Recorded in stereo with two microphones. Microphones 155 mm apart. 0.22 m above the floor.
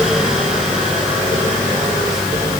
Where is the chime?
No chime in this recording.